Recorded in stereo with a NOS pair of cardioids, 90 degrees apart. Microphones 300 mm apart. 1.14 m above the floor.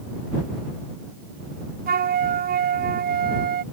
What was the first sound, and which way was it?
A flute, 30° right.